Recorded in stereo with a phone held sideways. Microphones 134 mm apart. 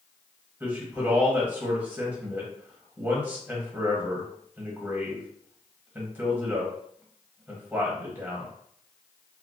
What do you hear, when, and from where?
0.6 s a man speaking: 15° right (ahead or behind), 1.1 m